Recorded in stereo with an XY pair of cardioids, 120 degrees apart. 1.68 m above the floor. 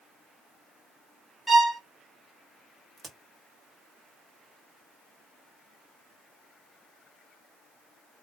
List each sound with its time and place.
1.5 s a violin: 5° right, 1.1 m
3.0 s a crack: 25° right, 1.0 m